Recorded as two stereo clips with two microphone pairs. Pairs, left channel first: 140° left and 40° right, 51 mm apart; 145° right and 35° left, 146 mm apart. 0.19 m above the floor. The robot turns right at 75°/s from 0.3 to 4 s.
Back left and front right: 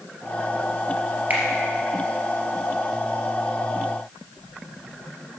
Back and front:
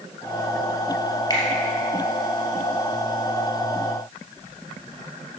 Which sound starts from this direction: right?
A finger snap, at 1.3 s.